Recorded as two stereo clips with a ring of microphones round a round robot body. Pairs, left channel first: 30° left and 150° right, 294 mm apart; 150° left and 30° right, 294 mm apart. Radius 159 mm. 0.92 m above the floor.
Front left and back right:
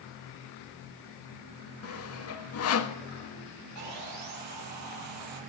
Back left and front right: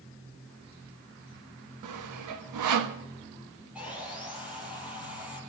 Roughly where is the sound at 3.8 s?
Behind right.